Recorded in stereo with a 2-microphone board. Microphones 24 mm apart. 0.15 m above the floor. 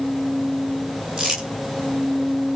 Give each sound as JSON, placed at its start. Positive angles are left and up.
{"t": 1.2, "sound": "crumpling", "side_deg": -15, "distance_m": 9.0}